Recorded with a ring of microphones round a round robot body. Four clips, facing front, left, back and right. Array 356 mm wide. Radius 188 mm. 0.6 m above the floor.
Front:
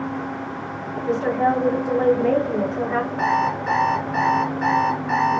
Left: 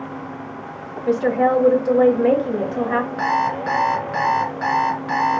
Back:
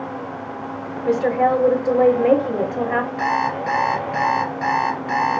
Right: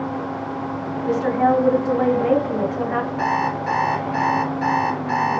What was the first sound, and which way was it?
A woman speaking, 140° left.